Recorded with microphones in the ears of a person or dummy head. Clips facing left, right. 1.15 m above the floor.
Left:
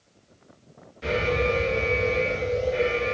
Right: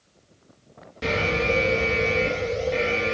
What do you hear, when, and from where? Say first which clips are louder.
1.0 s an alarm: even; 70° right (ahead or behind), 2.5 m